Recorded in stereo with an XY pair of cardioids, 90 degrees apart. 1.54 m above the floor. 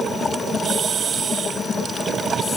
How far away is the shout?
I don't hear a shout.